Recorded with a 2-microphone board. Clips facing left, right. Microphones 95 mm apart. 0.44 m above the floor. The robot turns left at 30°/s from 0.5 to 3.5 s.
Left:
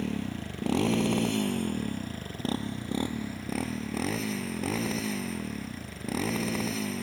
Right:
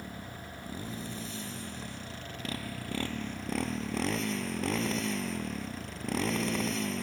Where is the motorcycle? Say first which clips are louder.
Left 10 dB; 90° left; by 7.0 s straight ahead.